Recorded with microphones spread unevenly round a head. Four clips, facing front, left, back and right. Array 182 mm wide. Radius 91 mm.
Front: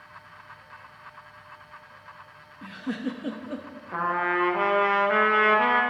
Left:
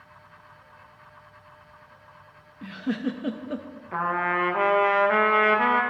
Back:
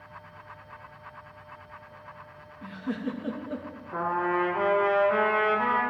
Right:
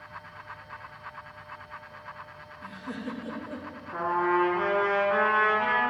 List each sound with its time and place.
2.6 s a giggle: 65° left, 0.6 m
3.9 s a trumpet: 50° left, 1.0 m